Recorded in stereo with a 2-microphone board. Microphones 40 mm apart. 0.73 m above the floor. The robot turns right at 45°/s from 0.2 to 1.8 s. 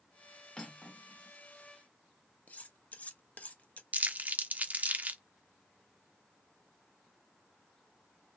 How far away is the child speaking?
I don't hear a child speaking.